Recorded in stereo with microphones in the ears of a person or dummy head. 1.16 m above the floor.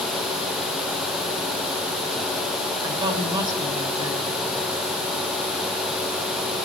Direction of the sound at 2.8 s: 25° right (ahead or behind).